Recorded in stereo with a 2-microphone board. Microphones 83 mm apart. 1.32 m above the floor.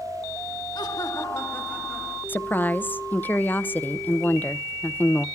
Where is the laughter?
60° left (ahead or behind), 2 m; by 2.2 s 5° left (ahead or behind), 2.5 m.